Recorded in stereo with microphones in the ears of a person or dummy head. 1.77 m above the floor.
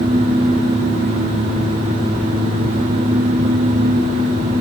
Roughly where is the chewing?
No chewing in this recording.